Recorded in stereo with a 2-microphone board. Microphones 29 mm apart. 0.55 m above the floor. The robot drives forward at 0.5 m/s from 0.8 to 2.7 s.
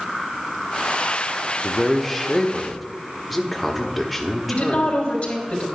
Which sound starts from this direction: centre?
A man speaking, at 1.6 s.